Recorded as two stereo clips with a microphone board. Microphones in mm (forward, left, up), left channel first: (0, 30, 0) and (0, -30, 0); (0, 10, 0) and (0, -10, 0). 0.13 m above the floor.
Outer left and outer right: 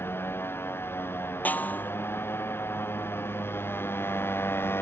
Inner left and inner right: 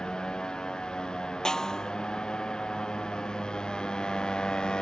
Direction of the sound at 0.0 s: 40° left (ahead or behind).